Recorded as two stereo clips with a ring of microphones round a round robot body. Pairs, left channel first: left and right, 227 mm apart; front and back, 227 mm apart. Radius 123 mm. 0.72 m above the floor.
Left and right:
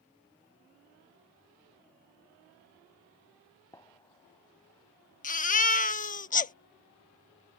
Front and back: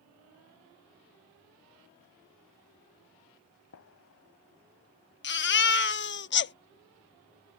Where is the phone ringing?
No phone ringing in this recording.